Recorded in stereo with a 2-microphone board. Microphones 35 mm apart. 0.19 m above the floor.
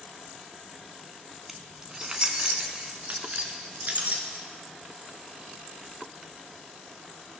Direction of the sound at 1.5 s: 10° right (ahead or behind).